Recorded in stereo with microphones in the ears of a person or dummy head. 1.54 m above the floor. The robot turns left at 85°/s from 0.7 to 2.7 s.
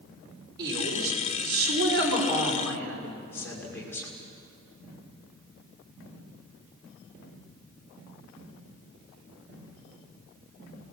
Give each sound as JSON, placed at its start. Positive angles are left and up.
{"t": 0.6, "sound": "a woman speaking", "azimuth_deg": -20, "distance_m": 5.5}